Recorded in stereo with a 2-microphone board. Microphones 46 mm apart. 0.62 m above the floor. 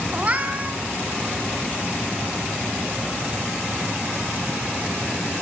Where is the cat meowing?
30° right (ahead or behind), 2.0 m.